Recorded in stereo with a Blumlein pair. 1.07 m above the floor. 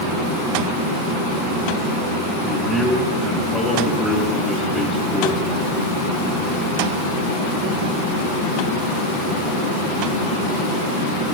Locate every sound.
2.4 s a man speaking: 10° left, 6.5 m